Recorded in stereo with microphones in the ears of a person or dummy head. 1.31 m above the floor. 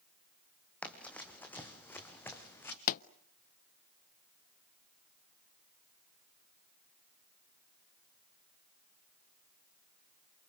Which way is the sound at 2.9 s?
45° left (ahead or behind).